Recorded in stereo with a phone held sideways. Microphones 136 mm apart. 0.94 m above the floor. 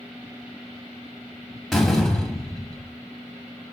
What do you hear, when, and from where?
1.7 s a door slam: centre (ahead or behind), 1.1 m